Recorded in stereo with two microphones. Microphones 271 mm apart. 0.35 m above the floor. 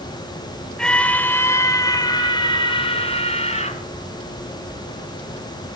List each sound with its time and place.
0.8 s a scream: centre (ahead or behind), 2.5 m; by 3.8 s 25° left (ahead or behind), 4 m